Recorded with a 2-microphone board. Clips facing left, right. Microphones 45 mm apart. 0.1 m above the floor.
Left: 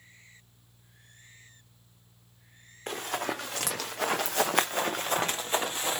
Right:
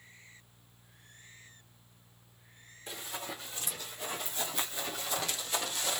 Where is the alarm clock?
I don't hear an alarm clock.